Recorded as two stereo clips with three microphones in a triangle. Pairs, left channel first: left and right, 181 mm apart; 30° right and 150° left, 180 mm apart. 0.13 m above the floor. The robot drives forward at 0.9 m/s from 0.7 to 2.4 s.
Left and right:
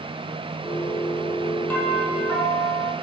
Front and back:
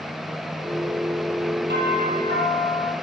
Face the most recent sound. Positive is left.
turn(degrees=175)